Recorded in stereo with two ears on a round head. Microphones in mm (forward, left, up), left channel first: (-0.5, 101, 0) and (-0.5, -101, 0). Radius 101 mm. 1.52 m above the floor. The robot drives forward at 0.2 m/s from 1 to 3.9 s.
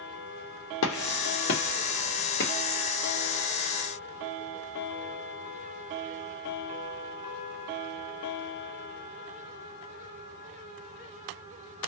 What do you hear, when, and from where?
0.8 s a gunshot: 65° left (ahead or behind), 0.7 m; by 2.5 s 45° left (ahead or behind), 0.9 m